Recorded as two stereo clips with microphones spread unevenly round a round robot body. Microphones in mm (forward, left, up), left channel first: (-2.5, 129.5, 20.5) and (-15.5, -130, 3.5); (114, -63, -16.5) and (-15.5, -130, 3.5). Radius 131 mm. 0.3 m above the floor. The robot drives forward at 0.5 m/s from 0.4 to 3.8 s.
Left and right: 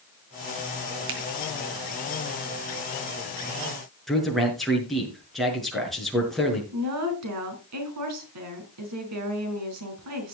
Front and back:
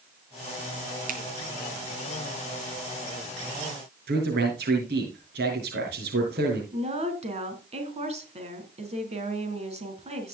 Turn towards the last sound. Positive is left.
turn(degrees=-110)